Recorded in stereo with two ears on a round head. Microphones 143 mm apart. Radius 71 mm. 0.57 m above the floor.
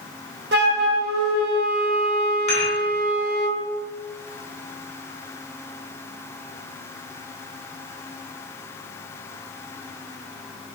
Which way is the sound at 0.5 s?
70° right (ahead or behind).